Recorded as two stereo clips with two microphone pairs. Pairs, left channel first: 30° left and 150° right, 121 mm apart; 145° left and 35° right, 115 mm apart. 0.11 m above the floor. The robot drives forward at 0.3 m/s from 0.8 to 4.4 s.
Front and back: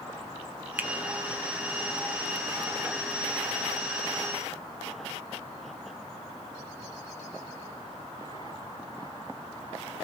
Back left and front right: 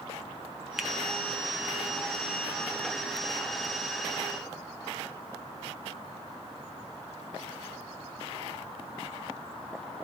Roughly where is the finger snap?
Right.